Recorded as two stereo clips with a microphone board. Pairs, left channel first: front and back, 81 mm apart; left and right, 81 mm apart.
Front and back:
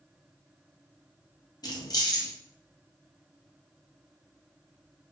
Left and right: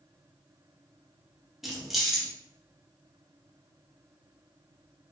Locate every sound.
1.6 s keys jangling: 5° right, 0.5 m